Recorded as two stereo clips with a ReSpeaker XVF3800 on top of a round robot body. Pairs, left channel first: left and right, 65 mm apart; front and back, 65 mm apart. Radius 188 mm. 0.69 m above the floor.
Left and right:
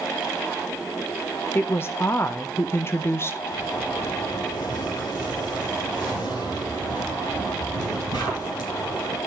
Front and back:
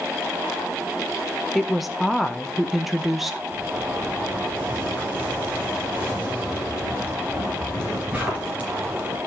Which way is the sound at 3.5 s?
105° left.